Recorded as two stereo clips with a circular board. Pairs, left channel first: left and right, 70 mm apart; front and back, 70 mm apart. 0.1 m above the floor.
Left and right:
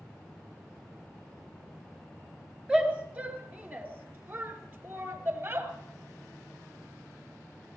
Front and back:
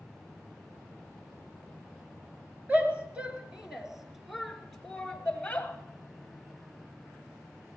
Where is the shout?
145° right, 1.8 m; by 5.7 s 60° right, 2 m.